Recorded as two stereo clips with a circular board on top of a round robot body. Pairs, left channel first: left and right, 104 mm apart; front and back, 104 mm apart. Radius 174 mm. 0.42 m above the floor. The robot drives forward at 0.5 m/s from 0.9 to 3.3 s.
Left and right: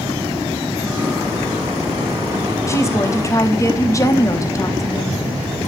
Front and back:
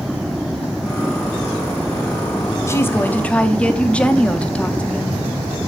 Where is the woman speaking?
45° left, 1.3 m; by 5.2 s 70° left, 1.2 m.